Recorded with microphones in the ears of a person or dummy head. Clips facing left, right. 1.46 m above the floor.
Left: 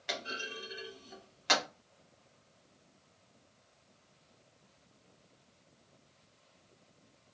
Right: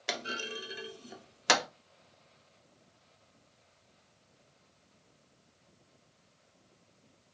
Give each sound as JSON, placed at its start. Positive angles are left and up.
{"t": 0.1, "sound": "a clunk", "side_deg": -55, "distance_m": 0.6}